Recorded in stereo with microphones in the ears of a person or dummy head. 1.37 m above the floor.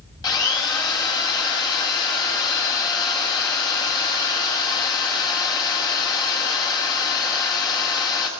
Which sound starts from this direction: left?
A drill, at 0.2 s.